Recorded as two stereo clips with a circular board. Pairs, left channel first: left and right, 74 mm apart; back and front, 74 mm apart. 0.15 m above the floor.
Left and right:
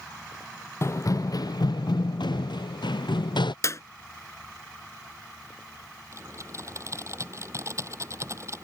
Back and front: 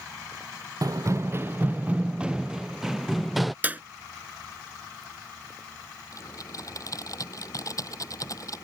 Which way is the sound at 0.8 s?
40° left.